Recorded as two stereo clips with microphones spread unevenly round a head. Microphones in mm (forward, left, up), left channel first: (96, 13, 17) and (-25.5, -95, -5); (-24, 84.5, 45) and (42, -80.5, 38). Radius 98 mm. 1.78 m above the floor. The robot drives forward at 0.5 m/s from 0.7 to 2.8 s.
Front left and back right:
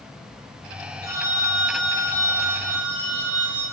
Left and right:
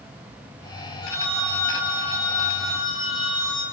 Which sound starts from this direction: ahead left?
A phone ringing, at 1.0 s.